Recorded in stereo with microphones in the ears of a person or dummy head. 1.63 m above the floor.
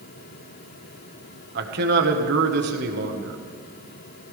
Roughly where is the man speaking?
Right.